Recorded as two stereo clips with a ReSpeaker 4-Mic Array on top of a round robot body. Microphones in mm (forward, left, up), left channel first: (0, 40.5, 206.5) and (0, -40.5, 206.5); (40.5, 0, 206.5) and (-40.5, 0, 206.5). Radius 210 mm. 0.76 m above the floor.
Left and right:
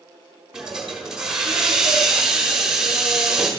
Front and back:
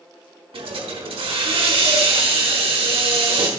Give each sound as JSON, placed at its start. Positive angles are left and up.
{"t": 0.5, "sound": "a hiss", "azimuth_deg": -175, "distance_m": 1.2}